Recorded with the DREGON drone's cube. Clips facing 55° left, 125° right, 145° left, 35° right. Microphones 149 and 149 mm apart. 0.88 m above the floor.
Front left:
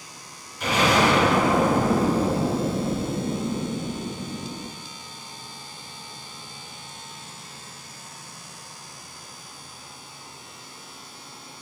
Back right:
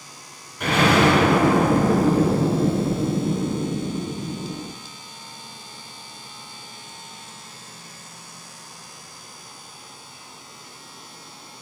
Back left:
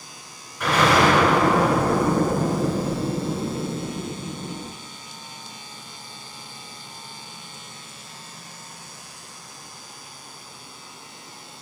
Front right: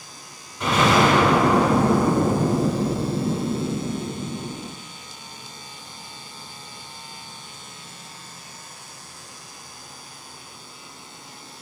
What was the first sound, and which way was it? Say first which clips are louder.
An explosion: back right 3 dB, even; 100° right.